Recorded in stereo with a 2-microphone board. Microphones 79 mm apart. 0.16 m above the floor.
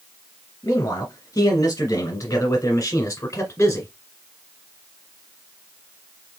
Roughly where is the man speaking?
Left.